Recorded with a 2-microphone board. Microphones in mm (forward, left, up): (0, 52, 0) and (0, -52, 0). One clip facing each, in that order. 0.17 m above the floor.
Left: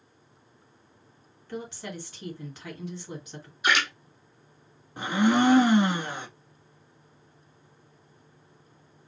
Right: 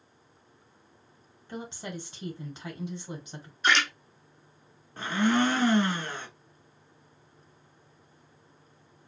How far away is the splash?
About 2 m.